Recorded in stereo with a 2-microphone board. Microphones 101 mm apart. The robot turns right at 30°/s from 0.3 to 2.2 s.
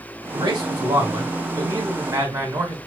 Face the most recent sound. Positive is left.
turn(degrees=-45)